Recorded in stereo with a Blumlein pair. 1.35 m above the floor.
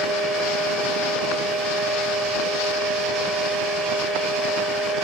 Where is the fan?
Straight ahead, 5 m.